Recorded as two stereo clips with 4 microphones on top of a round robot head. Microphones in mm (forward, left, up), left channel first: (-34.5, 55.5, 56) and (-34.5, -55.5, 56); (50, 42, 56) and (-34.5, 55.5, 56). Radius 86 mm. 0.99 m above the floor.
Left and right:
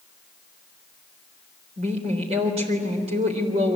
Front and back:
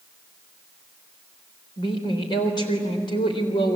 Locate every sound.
1.8 s a woman speaking: 50° right, 3.5 m